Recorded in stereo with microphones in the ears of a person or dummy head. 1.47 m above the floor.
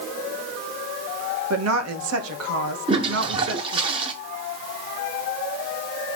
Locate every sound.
1.5 s a woman speaking: 80° right, 1.8 m
2.9 s a toilet flushing: 30° right (ahead or behind), 2 m